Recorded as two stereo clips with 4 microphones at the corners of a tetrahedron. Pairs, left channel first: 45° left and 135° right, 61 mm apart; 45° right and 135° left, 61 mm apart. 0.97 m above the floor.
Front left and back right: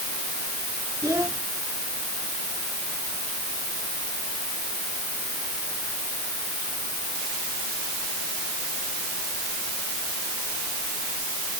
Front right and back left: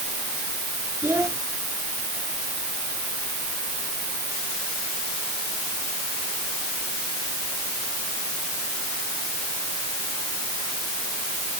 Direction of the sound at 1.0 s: 175° right.